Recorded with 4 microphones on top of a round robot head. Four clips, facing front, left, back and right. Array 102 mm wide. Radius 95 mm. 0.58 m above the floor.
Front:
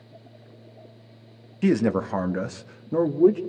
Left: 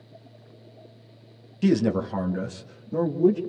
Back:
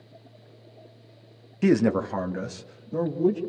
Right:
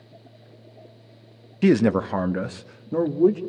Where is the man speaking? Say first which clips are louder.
Right 4 dB, back 1 dB; 110° right, 0.8 m; by 3.4 s 35° right, 1.5 m.